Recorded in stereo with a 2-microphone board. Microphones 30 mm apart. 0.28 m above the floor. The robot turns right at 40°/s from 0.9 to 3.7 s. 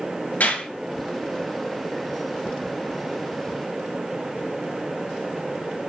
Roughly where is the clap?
Left.